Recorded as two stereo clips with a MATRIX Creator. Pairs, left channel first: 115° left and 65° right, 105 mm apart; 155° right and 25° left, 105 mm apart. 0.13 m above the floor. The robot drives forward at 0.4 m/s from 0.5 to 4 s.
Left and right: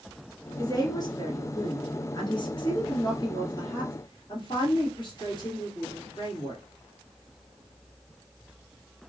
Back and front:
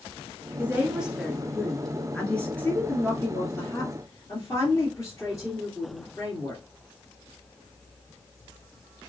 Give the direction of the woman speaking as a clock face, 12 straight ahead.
9 o'clock.